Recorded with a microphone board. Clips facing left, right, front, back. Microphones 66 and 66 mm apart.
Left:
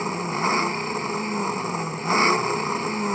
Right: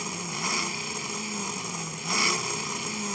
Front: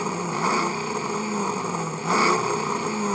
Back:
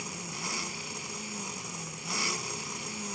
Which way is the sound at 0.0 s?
35° left.